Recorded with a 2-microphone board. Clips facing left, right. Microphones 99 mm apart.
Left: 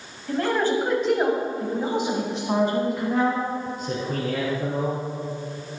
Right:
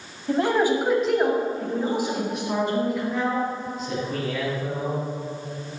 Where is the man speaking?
25° right (ahead or behind), 1.7 m; by 5.0 s 55° left (ahead or behind), 4.5 m.